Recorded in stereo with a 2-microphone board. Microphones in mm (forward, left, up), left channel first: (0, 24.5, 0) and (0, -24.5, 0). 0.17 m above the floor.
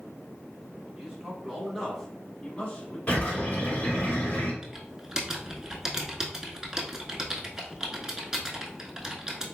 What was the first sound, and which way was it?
A man speaking, 20° right (ahead or behind).